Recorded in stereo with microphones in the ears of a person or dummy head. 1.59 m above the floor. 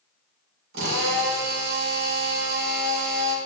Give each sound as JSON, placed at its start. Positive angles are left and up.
{"t": 0.7, "sound": "a drill", "side_deg": -70, "distance_m": 4.5}